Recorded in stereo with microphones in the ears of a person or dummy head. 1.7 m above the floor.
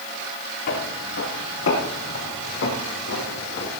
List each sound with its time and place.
0.7 s footsteps: 70° left (ahead or behind), 6 m; by 3.7 s 45° left (ahead or behind), 4 m